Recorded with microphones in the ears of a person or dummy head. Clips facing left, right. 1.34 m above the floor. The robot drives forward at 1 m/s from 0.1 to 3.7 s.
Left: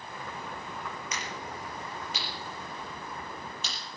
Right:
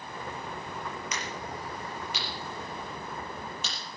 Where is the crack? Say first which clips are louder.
Right 2 dB; 70° right (ahead or behind), 5.5 m; by 3.7 s 50° right (ahead or behind), 7 m.